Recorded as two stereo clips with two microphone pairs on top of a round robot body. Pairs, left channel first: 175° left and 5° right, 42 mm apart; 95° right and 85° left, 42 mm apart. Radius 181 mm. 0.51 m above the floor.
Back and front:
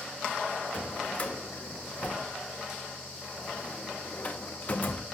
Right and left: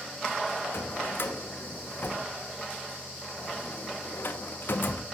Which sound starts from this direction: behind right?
A drawer, at 0.7 s.